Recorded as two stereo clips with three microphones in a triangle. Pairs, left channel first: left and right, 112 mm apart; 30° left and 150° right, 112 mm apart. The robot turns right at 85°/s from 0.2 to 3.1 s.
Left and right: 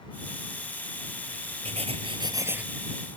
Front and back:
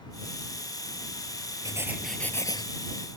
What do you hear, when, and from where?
1.6 s writing: 95° right; by 2.6 s 10° right